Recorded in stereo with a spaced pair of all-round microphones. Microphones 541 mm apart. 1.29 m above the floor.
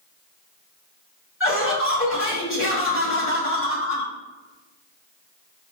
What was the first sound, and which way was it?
Laughter, 25° left (ahead or behind).